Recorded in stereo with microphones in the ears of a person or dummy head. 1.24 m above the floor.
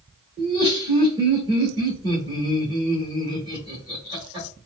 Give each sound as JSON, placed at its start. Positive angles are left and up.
{"t": 0.4, "sound": "laughter", "side_deg": -20, "distance_m": 1.1}